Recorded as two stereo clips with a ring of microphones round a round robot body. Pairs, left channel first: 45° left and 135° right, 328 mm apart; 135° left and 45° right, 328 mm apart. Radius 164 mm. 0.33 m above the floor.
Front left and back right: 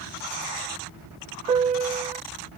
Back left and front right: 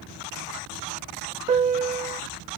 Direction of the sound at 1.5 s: 90° right.